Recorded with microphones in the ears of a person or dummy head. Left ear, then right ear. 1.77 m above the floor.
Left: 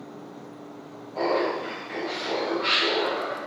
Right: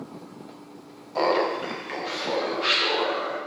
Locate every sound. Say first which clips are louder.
1.1 s laughter: right 2 dB; 75° right (ahead or behind), 0.7 m